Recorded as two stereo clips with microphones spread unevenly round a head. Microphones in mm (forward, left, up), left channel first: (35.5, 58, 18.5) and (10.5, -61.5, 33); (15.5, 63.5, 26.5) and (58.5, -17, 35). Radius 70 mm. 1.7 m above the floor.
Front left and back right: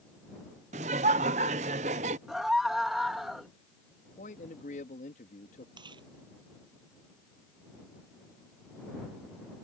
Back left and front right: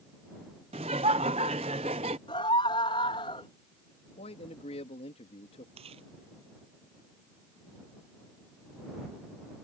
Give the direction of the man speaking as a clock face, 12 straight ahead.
8 o'clock.